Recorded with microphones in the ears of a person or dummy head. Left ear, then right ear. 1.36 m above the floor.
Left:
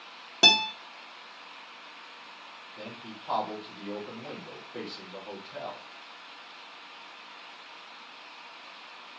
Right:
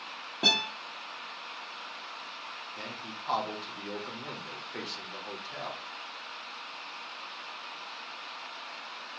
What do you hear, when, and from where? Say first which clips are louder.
0.4 s a guitar: left 5 dB; 35° left (ahead or behind), 1.1 m
2.8 s a man speaking: right 3 dB; 45° right (ahead or behind), 3 m